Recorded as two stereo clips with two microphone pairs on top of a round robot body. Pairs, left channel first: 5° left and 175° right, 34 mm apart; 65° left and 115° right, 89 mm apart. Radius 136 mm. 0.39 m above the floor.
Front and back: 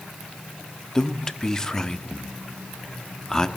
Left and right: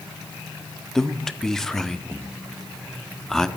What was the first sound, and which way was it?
A man speaking, 10° left.